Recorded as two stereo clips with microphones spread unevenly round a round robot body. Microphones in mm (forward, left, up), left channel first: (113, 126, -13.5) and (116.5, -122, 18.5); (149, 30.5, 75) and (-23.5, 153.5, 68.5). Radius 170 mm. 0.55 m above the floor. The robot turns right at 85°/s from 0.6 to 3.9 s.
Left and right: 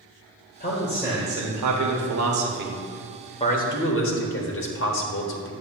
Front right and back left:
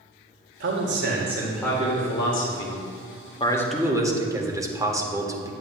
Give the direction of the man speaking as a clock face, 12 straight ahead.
7 o'clock.